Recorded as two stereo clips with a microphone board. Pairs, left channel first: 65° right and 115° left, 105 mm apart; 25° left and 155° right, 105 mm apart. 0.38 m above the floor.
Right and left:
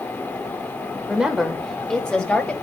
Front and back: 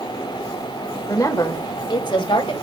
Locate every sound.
1.1 s a woman speaking: 40° left, 1.2 m; by 2.5 s 5° left, 1.9 m